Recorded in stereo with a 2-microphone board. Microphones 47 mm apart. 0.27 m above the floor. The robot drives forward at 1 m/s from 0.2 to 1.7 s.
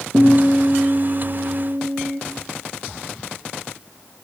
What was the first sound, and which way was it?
A guitar, 65° right (ahead or behind).